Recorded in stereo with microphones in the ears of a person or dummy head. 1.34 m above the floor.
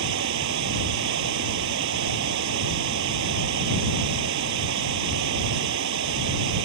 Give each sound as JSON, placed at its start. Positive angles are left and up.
{"t": 0.0, "sound": "running water", "side_deg": -70}